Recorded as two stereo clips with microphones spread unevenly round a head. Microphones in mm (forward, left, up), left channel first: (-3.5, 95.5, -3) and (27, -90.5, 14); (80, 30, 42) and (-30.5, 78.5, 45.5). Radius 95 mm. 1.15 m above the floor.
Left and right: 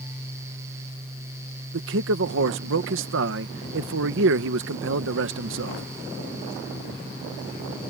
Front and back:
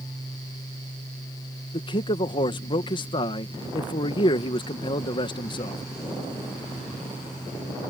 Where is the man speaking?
70° right.